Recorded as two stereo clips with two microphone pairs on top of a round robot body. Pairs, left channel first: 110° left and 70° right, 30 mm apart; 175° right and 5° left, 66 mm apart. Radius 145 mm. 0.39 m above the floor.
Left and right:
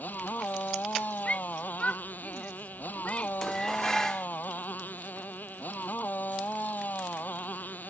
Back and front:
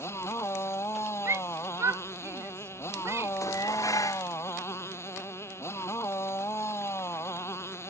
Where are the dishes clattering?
170° right.